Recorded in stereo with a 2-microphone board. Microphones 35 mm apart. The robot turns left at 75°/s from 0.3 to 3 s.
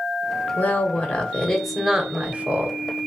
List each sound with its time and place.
0.6 s a woman speaking: 90° left, 1.1 m; by 2.8 s 75° right, 1.1 m